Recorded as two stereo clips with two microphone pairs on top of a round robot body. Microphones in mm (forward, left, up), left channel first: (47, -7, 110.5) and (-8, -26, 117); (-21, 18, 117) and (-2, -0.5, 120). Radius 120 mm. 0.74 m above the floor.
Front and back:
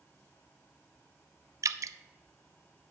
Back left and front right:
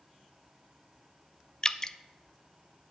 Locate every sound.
1.6 s dripping: 170° right, 0.5 m